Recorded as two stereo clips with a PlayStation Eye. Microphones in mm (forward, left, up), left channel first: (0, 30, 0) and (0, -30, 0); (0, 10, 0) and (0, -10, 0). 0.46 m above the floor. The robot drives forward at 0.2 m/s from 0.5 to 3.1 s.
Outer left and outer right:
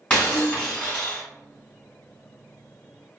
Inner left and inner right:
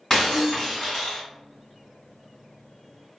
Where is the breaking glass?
15° left (ahead or behind), 1.6 m.